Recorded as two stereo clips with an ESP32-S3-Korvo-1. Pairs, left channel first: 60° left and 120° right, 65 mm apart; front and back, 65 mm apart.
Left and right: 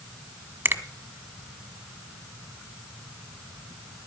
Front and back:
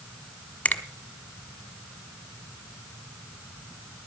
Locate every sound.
0.7 s a finger snap: 70° right, 1.6 m